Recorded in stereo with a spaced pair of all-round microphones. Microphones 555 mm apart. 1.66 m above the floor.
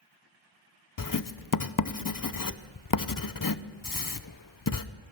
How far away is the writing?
About 0.6 m.